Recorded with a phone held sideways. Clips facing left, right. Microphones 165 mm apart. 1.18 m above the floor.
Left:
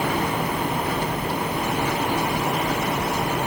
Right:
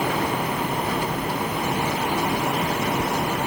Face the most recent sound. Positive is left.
No sound to turn to.